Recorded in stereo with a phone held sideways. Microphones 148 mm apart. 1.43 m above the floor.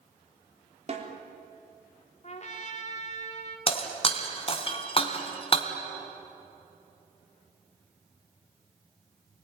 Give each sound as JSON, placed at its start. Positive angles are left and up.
{"t": 0.9, "sound": "a snare drum", "side_deg": -45, "distance_m": 3.5}
{"t": 2.2, "sound": "a trumpet", "side_deg": 50, "distance_m": 3.0}
{"t": 3.7, "sound": "breaking glass", "side_deg": 40, "distance_m": 2.5}